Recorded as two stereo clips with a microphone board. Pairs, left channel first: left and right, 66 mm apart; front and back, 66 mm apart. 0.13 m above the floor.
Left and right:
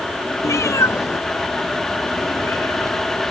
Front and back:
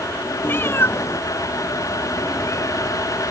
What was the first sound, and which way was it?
A cat meowing, 55° left.